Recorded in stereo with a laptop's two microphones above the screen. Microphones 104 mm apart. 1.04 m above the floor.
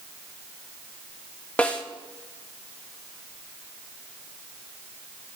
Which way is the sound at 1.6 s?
15° left (ahead or behind).